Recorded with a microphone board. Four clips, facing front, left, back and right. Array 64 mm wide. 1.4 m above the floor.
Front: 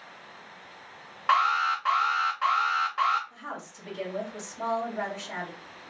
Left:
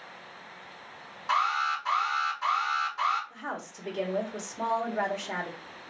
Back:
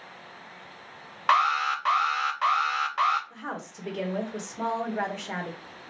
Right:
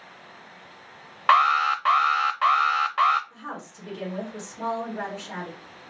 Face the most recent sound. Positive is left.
turn(degrees=140)